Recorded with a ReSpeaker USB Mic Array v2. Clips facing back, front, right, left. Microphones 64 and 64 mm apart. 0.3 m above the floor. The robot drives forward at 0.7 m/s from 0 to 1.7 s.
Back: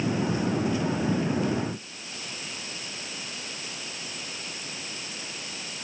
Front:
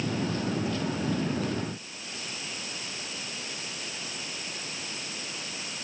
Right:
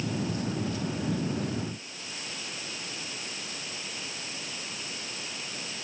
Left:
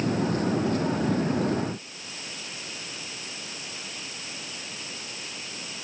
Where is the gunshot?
No gunshot in this recording.